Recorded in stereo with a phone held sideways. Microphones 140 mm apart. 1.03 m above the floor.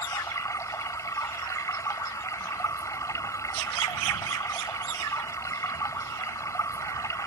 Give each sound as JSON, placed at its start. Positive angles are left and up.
{"t": 0.0, "sound": "running water", "side_deg": 25}